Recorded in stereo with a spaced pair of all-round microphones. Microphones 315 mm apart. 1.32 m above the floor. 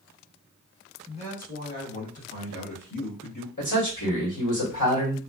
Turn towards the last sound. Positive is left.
turn(degrees=70)  # may be behind; listen again after turning